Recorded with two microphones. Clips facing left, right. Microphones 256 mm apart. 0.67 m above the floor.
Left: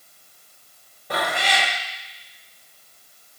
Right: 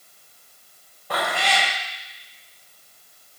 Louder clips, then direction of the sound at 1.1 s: Even; 20° left (ahead or behind).